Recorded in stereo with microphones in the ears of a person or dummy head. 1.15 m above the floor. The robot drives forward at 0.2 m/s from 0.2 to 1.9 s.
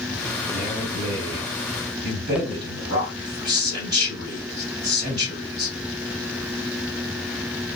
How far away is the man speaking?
About 1.4 m.